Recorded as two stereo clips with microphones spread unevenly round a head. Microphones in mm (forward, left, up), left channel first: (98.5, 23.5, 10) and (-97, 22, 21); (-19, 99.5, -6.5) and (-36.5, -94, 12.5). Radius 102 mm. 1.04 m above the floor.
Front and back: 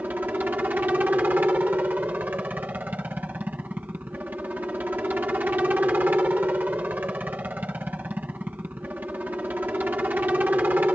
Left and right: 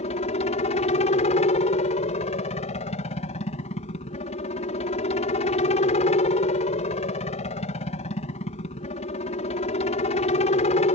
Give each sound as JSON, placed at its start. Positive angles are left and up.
{"t": 0.0, "sound": "a helicopter", "azimuth_deg": 100}